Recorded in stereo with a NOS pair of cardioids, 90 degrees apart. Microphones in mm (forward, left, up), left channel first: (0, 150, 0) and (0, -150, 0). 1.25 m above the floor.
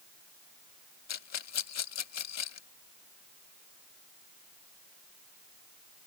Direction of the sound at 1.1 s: 60° left.